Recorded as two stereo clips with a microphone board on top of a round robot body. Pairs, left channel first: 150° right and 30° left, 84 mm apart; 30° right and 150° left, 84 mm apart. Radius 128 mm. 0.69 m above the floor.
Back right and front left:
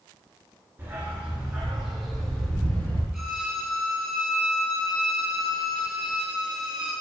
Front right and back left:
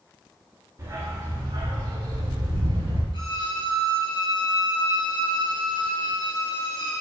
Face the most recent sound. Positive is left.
turn(degrees=-60)